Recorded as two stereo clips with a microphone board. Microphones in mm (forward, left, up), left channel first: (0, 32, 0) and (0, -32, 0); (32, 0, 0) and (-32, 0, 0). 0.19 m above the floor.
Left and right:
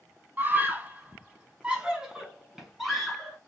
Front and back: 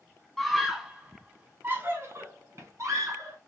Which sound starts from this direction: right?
A scream, at 0.4 s.